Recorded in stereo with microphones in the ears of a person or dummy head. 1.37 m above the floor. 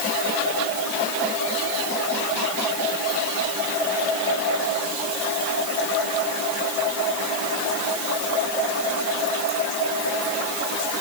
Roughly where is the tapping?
I don't hear tapping.